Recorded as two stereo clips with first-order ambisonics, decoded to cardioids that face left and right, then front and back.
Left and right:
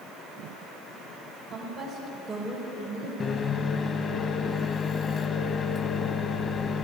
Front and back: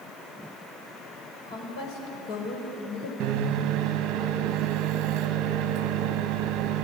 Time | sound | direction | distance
1.5 | a woman speaking | 5° right | 5 m
3.2 | a microwave | 150° left | 1.1 m